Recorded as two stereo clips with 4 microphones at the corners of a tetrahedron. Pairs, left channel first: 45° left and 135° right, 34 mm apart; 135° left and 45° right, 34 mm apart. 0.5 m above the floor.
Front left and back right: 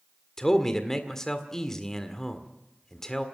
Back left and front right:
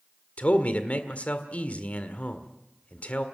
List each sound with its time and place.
0.4 s a man speaking: 115° left, 1.6 m